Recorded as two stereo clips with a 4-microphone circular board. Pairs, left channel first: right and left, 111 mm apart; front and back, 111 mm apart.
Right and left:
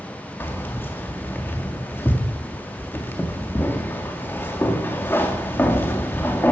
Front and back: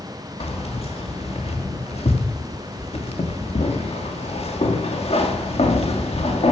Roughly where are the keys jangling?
Ahead.